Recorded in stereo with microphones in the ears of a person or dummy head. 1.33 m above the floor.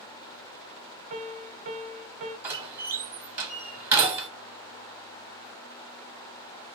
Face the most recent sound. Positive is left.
turn(degrees=-15)  # may be behind; listen again after turning